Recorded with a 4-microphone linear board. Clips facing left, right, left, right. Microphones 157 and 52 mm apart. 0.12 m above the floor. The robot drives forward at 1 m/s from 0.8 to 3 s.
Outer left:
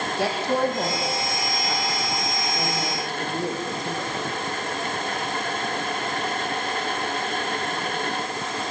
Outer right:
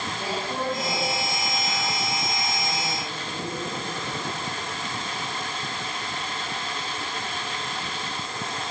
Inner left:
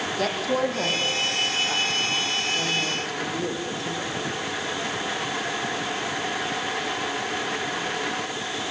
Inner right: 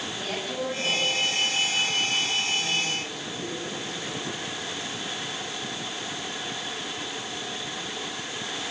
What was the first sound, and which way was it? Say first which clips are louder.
A woman speaking: outer left 8 dB, inner left 8 dB; 70° left (ahead or behind).